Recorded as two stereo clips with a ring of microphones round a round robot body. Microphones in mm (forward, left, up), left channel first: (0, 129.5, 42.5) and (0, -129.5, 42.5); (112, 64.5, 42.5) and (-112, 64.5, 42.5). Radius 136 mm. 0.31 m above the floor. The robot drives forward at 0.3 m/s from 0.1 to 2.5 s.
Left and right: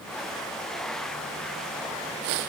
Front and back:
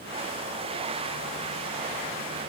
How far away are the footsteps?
No footsteps in this recording.